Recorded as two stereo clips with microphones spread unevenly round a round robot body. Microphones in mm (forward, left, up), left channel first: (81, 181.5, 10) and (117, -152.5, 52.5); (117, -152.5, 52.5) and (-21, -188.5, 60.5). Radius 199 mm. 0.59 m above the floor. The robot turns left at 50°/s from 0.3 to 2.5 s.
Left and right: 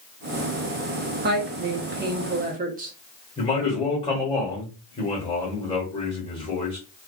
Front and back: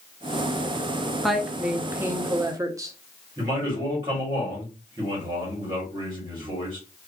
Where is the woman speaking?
65° right, 0.6 m; by 2.9 s 130° right, 0.6 m.